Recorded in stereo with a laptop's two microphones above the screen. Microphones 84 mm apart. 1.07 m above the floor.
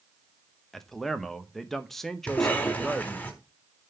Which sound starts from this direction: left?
A cough, at 2.3 s.